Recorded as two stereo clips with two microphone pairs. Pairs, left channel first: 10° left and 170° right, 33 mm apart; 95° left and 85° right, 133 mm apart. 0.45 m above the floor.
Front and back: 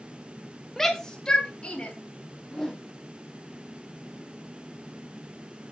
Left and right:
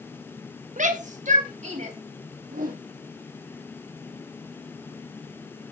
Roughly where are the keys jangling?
No keys jangling in this recording.